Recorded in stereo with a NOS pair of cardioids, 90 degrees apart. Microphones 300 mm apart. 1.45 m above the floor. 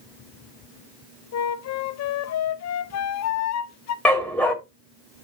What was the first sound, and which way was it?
A flute, 60° left.